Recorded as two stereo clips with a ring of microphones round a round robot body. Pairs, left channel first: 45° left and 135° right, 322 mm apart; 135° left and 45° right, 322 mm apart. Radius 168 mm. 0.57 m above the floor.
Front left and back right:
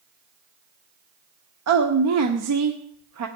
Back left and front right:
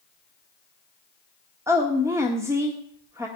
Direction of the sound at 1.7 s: 125° right.